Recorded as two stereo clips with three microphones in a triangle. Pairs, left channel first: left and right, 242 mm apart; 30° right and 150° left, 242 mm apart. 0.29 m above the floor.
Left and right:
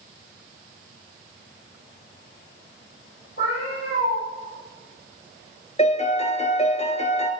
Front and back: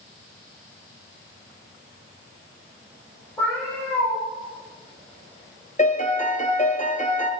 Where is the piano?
25° left, 1.5 m.